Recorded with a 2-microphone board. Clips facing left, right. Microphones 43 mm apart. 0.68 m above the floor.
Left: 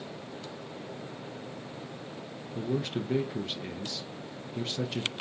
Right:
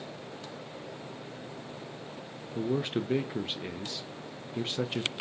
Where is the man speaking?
25° right (ahead or behind), 0.6 m.